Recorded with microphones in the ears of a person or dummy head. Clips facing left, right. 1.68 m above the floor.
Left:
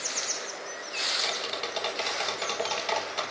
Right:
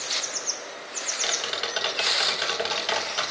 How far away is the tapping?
About 3.5 m.